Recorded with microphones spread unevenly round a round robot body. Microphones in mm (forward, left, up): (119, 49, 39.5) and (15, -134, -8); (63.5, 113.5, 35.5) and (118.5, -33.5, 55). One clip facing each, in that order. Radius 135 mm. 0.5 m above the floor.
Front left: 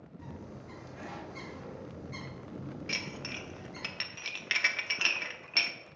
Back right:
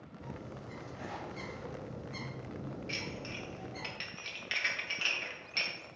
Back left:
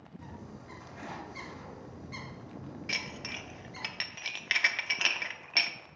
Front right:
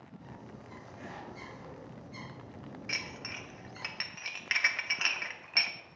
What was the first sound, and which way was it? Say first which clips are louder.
A bird: back right 1 dB, back left 3 dB; 100° left.